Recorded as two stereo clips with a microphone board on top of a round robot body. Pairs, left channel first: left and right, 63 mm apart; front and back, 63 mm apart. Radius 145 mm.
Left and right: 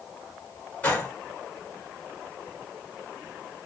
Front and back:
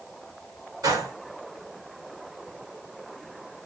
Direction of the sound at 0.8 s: 160° left.